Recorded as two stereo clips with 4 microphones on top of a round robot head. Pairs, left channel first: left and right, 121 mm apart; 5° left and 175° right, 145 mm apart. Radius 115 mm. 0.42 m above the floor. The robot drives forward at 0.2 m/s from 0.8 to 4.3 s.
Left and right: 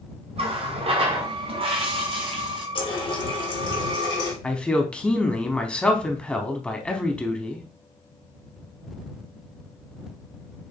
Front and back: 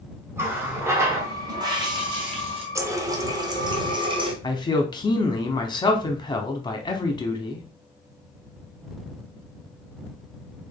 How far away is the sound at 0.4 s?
About 0.9 m.